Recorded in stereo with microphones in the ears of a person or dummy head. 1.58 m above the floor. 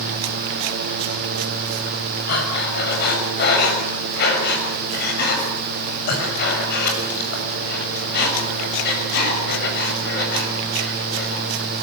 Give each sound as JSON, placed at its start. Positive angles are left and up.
{"t": 2.3, "sound": "breathing", "side_deg": 60, "distance_m": 6.5}